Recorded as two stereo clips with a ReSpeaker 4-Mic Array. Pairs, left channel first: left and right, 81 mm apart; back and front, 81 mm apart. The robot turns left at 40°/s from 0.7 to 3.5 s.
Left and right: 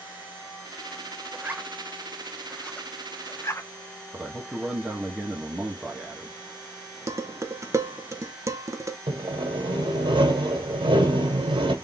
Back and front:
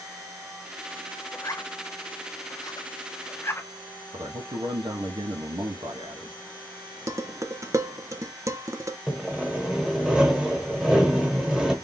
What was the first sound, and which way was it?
A zipper, 145° right.